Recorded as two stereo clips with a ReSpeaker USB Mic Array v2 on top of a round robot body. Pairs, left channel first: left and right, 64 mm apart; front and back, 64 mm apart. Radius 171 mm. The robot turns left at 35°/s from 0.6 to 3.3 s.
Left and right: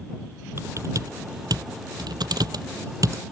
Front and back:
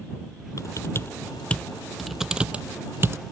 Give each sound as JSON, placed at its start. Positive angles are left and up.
{"t": 0.6, "sound": "typing on a keyboard", "azimuth_deg": -40}